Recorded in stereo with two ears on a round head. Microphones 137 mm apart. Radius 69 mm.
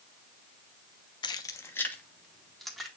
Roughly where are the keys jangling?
Left.